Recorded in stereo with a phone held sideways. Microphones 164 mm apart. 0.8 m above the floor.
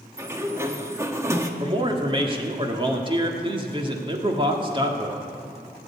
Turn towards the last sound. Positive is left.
turn(degrees=-30)  # may be behind; listen again after turning